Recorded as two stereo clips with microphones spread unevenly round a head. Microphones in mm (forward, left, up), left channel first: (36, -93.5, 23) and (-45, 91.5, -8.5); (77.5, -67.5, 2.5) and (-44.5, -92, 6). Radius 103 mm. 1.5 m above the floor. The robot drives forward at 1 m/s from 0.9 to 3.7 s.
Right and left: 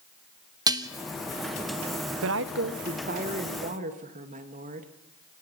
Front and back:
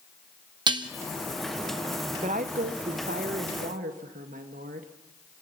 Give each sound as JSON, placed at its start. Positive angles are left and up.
{"t": 0.7, "sound": "dishes clattering", "azimuth_deg": -175, "distance_m": 0.8}
{"t": 2.2, "sound": "a woman speaking", "azimuth_deg": 130, "distance_m": 0.7}